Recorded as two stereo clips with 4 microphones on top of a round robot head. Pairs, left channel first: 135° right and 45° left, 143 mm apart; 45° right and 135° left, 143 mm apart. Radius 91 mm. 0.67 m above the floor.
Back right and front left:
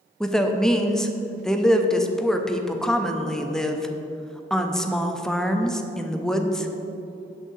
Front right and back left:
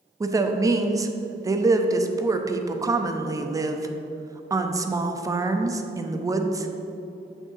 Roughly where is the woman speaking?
Behind left.